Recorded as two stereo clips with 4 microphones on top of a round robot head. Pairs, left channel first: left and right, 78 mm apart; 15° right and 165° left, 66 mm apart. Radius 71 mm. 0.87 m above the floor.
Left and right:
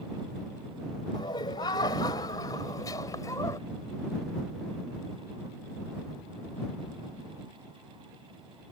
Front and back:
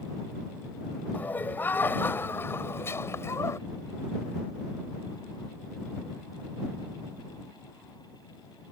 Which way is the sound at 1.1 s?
50° left.